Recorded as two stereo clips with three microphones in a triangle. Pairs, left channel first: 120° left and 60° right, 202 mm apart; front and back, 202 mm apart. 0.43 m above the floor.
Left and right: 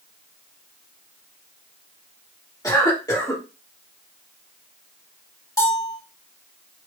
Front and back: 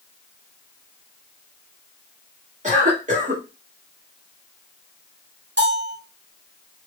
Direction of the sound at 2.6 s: Straight behind.